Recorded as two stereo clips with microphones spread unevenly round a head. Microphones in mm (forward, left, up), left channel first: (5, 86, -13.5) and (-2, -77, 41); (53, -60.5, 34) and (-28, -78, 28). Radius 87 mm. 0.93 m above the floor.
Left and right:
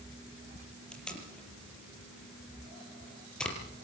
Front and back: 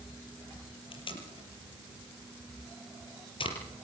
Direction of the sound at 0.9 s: Straight ahead.